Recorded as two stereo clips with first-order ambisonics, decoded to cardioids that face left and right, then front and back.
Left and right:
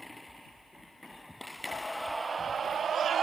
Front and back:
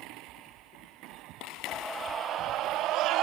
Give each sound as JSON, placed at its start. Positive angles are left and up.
{"t": 1.7, "sound": "a scream", "azimuth_deg": 45}